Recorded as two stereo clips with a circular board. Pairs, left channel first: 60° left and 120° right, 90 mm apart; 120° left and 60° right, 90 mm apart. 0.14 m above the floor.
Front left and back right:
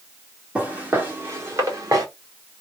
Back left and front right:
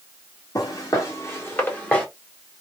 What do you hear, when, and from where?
0.6 s footsteps: 165° left, 1.7 m; by 2.1 s 165° right, 1.9 m